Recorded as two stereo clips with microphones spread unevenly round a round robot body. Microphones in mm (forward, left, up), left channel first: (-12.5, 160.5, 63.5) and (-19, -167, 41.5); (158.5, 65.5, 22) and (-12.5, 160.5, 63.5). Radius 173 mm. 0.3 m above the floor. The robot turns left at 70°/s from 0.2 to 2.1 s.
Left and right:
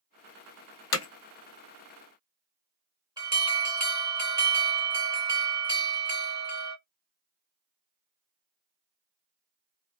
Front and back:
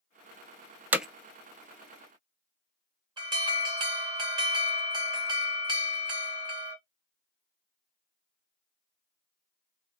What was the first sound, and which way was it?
Hammering, 60° left.